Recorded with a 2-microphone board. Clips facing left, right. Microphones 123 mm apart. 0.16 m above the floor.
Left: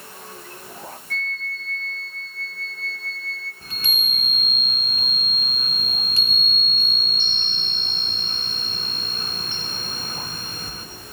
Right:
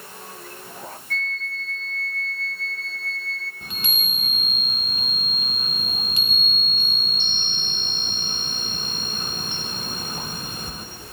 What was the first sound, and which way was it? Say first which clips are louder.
A flute: right 2 dB; centre (ahead or behind).